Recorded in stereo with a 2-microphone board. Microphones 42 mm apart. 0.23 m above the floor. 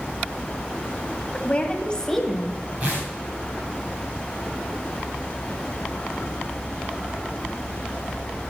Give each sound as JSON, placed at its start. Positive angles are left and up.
{"t": 1.3, "sound": "a woman speaking", "side_deg": 35, "distance_m": 1.7}
{"t": 2.8, "sound": "tearing paper", "side_deg": -25, "distance_m": 7.0}